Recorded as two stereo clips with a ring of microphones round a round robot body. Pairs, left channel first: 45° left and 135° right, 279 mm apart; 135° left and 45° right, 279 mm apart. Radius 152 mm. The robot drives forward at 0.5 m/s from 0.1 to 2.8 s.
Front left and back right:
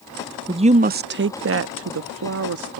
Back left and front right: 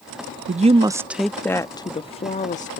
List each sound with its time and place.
0.5 s a woman speaking: 75° right; by 2.8 s 165° right